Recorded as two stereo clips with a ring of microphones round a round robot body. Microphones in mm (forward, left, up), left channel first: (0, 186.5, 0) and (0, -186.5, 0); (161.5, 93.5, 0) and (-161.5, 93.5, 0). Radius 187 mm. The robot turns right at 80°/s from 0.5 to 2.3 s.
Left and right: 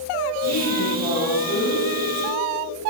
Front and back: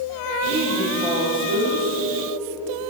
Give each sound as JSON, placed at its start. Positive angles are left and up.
{"t": 0.5, "sound": "a woman speaking", "azimuth_deg": 50, "distance_m": 5.0}